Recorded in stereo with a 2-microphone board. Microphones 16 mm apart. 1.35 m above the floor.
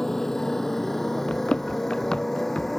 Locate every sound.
0.0 s a motorcycle: 25° left (ahead or behind); by 2.8 s 15° left (ahead or behind)
1.3 s running footsteps: 70° left (ahead or behind)